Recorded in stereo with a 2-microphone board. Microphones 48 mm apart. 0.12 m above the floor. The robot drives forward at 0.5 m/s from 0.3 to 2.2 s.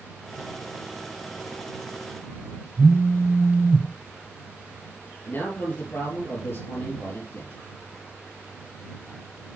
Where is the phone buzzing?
55° right (ahead or behind), 1.0 m.